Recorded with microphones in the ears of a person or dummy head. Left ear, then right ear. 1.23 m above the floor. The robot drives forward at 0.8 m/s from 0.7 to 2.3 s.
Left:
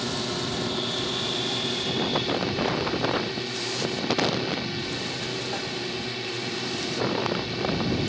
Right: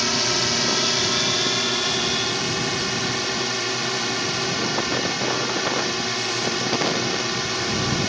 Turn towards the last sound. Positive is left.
turn(degrees=-55)  # may be behind; listen again after turning